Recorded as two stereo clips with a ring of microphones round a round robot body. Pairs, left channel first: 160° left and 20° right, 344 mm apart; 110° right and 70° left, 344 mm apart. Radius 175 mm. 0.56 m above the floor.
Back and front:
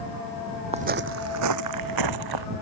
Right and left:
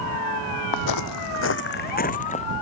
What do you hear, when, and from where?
0.7 s footsteps: 95° right; by 2.5 s 40° right